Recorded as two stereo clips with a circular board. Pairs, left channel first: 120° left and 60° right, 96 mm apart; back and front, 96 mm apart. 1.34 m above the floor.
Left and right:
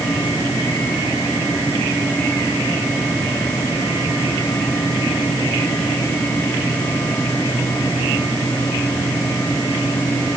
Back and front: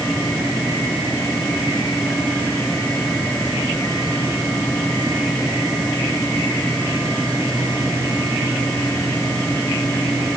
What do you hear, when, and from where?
Only background noise.